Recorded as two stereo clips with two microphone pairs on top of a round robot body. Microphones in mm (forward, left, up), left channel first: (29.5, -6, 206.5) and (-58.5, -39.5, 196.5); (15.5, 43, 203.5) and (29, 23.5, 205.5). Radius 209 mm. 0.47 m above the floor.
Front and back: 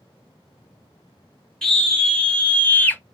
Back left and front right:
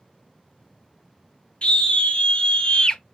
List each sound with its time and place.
1.6 s a scream: 105° left, 2.5 m; by 3.0 s 85° left, 1.6 m